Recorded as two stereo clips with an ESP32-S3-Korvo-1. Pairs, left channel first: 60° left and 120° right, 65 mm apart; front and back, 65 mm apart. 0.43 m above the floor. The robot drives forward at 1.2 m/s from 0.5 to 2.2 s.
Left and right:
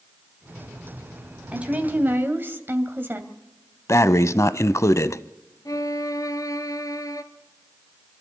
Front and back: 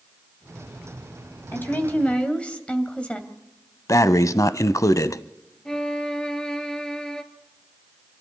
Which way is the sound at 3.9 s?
25° left.